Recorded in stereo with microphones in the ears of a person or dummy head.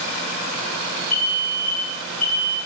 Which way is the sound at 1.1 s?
40° right (ahead or behind).